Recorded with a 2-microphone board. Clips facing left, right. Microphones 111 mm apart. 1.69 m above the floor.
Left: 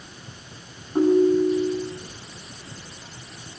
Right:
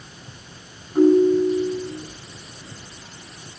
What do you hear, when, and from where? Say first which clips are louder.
0.9 s a ringtone: right 3 dB; 25° left (ahead or behind), 9.5 m